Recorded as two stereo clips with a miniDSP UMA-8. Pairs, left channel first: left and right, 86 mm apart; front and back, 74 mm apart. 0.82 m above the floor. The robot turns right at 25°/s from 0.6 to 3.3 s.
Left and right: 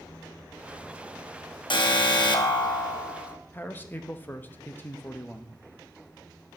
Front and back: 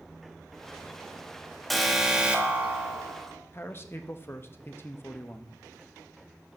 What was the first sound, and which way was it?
An alarm, 90° left.